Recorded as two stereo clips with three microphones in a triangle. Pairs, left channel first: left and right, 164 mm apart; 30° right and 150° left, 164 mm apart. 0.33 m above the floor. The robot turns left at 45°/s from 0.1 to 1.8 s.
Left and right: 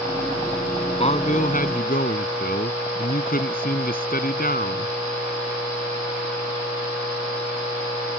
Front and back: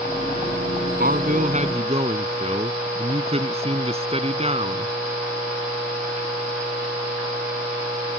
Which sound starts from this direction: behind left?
A man speaking, at 1.0 s.